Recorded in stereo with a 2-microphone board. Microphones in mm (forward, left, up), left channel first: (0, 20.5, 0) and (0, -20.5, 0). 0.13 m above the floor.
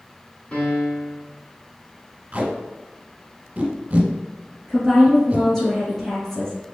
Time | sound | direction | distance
0.5 | a piano | 30° left (ahead or behind) | 1.1 m
2.3 | tape being pulled | 30° right (ahead or behind) | 1.1 m
4.7 | a woman speaking | 5° left (ahead or behind) | 1.9 m